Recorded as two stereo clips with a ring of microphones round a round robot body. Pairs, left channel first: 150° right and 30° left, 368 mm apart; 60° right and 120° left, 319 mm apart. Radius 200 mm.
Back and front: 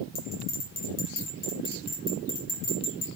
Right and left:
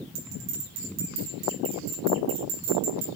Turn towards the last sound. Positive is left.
turn(degrees=140)